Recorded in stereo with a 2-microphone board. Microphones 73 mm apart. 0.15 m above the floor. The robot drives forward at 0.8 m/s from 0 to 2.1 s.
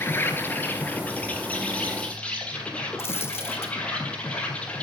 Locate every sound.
0.0 s an insect: 30° left (ahead or behind), 1.8 m; by 4.8 s 15° left (ahead or behind), 3 m
3.0 s a dropped coin: 35° left (ahead or behind), 1.9 m